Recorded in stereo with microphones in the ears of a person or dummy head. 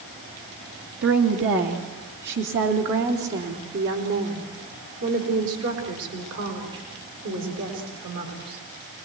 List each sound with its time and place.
1.0 s a woman speaking: 60° right (ahead or behind), 2 m; by 8.6 s 65° right (ahead or behind), 6.5 m